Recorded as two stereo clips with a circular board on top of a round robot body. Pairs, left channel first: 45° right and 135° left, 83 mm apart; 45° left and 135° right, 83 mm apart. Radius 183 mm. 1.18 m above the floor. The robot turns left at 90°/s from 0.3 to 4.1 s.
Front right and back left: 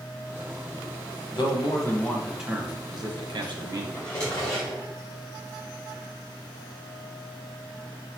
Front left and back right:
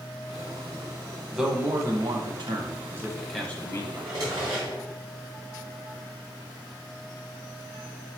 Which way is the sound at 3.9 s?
80° right.